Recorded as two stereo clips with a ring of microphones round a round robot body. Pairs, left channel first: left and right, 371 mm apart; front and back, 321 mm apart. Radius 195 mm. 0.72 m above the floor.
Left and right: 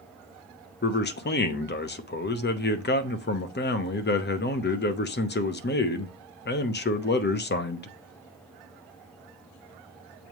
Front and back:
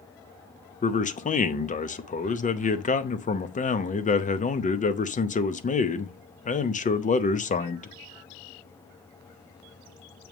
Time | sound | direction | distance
0.8 | a man speaking | 50° left | 0.9 m